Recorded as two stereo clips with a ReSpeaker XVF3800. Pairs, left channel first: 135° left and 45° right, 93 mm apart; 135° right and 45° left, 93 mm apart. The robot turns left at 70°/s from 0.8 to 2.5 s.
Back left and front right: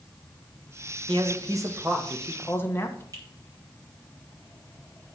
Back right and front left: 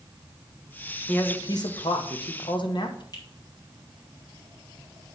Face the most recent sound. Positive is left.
turn(degrees=-95)